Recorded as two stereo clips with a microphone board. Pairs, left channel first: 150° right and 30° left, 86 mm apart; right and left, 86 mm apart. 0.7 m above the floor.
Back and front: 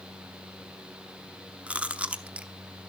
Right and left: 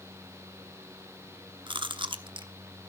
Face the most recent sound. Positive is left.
turn(degrees=105)